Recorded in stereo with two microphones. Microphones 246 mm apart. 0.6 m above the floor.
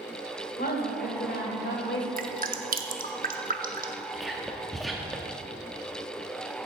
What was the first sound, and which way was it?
A woman speaking, 40° left (ahead or behind).